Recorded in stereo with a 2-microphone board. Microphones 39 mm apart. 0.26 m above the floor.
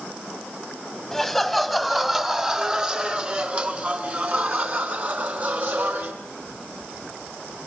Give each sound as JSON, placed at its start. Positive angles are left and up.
{"t": 1.1, "sound": "laughter", "side_deg": 5, "distance_m": 1.9}